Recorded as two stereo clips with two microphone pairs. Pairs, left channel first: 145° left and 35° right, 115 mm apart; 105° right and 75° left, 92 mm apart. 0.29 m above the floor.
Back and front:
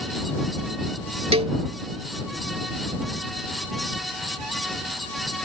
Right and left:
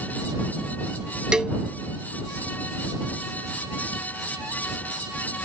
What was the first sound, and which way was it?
A cowbell, 5° right.